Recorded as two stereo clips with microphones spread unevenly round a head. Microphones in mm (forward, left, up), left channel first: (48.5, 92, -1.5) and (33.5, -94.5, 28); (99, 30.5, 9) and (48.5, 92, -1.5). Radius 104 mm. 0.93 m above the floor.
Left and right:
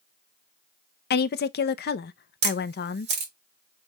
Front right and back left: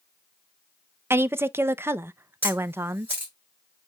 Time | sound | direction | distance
1.1 | a woman speaking | 75° left | 0.6 m
2.4 | a camera shutter | 150° right | 1.0 m